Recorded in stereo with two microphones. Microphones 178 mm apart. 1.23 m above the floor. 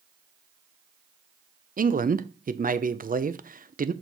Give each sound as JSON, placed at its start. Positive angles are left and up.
{"t": 1.8, "sound": "a man speaking", "side_deg": -50, "distance_m": 0.5}